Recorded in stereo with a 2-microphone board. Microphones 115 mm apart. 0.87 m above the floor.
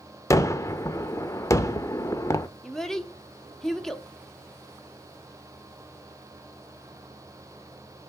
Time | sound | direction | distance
0.3 | a gunshot | 25° left (ahead or behind) | 0.6 m
2.6 | a child speaking | 5° left (ahead or behind) | 1.0 m